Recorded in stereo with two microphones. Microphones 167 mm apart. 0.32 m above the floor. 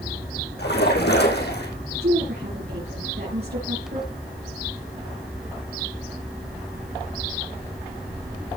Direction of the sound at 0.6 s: 85° left.